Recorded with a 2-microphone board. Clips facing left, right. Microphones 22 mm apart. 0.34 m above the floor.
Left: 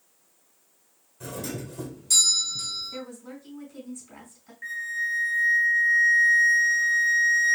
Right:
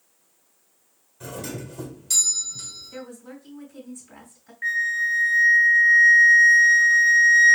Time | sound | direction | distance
1.2 | a doorbell | 10° right (ahead or behind) | 1.3 m
2.9 | a woman speaking | centre (ahead or behind) | 3 m
4.6 | a flute | 45° right (ahead or behind) | 0.9 m